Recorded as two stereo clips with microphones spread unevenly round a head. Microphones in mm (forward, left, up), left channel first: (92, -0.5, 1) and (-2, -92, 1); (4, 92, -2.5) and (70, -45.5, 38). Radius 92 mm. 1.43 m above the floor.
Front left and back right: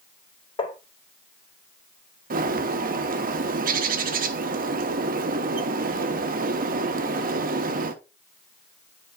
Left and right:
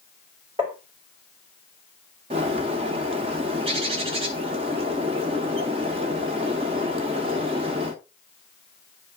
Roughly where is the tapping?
Ahead.